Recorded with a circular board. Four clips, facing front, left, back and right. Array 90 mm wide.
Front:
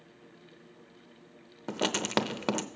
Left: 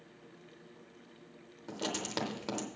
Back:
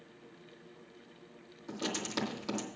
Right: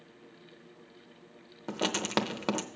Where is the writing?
30° right, 0.7 m.